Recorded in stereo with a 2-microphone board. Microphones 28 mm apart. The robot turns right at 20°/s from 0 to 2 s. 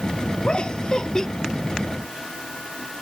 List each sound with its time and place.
0.4 s laughter: 45° left (ahead or behind); by 1.3 s 30° left (ahead or behind)